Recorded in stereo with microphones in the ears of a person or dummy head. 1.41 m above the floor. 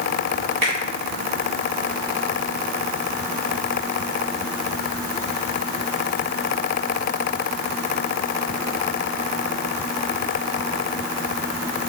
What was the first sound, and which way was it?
A finger snap, 70° right (ahead or behind).